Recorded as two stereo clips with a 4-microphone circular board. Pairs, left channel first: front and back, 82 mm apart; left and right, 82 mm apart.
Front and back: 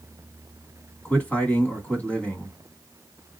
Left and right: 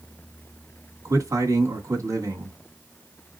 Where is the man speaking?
65° right, 1.8 m.